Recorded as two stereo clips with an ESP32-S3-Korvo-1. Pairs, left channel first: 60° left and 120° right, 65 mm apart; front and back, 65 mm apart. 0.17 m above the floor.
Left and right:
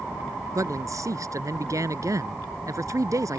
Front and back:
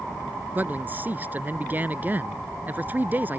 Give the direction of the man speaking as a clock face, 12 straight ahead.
4 o'clock.